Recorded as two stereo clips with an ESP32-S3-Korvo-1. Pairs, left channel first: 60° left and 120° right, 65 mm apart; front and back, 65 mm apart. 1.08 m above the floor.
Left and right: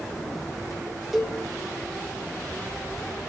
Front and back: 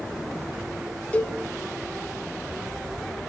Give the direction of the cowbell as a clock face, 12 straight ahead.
1 o'clock.